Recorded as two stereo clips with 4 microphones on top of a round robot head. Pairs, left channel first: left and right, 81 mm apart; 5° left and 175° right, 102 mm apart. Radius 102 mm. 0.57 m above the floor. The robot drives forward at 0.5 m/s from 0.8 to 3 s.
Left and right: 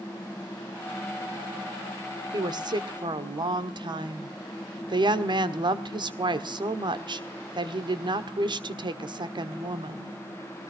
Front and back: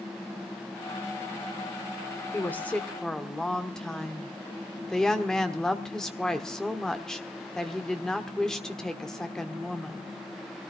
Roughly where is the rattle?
No rattle in this recording.